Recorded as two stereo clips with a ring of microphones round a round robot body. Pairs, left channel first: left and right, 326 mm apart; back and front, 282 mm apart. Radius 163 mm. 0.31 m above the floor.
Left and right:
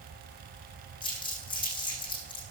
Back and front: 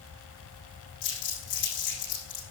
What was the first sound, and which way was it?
Crumpling, 165° left.